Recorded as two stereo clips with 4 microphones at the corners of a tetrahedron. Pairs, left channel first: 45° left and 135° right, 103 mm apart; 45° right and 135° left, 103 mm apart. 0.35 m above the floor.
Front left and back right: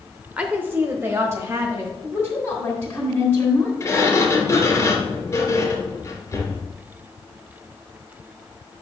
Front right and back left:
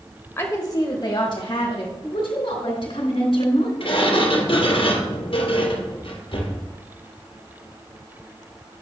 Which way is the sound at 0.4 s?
70° right.